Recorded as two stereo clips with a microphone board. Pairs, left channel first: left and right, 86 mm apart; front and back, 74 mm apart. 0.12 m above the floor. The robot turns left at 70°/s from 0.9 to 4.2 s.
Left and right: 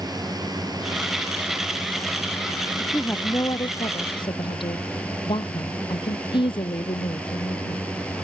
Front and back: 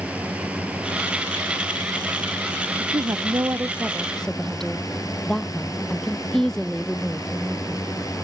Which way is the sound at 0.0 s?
110° right.